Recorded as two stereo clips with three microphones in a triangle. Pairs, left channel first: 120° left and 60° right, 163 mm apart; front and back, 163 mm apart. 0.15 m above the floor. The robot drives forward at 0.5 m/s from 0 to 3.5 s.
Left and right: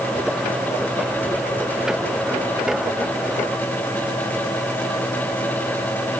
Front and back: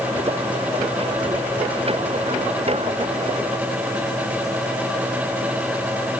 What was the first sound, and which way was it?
Only background noise.